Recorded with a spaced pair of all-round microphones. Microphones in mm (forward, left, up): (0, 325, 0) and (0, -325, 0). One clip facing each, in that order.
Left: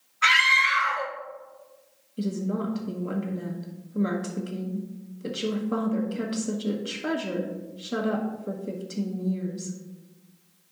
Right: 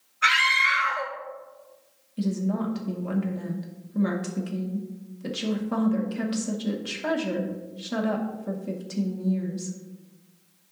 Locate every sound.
0.2 s a scream: 30° left (ahead or behind), 1.0 m
2.2 s a woman speaking: 25° right (ahead or behind), 1.0 m